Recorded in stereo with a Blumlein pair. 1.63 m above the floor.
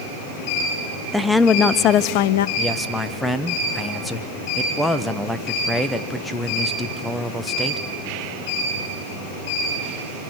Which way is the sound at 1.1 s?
Straight ahead.